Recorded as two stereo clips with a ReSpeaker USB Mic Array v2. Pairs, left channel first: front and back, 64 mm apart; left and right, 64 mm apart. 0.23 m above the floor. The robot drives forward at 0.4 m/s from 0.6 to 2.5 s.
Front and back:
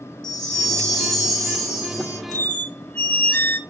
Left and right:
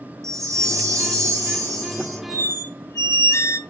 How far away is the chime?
About 1.7 m.